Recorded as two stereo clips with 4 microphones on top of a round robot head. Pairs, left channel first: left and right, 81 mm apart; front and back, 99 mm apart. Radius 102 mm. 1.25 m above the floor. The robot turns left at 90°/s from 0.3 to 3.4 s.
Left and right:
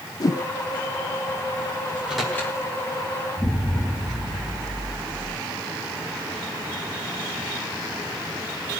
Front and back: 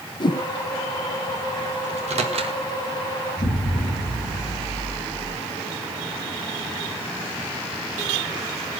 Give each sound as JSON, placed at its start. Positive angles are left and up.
{"t": 0.2, "sound": "a whoosh", "azimuth_deg": 45, "distance_m": 0.6}
{"t": 1.9, "sound": "a microwave", "azimuth_deg": -155, "distance_m": 1.6}
{"t": 3.4, "sound": "an explosion", "azimuth_deg": 35, "distance_m": 5.0}